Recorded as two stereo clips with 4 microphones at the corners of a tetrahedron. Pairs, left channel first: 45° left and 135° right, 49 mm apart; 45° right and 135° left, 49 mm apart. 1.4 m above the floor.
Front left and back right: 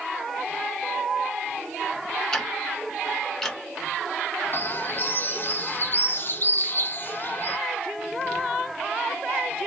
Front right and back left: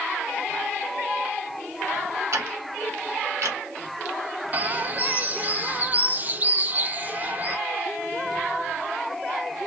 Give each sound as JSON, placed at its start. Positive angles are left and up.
{"t": 2.3, "sound": "ticking", "azimuth_deg": 120, "distance_m": 1.0}
{"t": 4.5, "sound": "a bird", "azimuth_deg": 85, "distance_m": 0.5}